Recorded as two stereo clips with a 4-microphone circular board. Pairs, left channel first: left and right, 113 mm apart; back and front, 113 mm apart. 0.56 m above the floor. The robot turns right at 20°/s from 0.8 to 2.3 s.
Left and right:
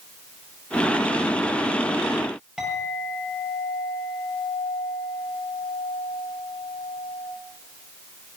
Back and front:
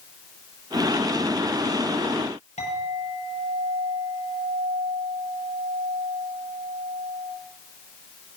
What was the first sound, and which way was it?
A clink, 175° right.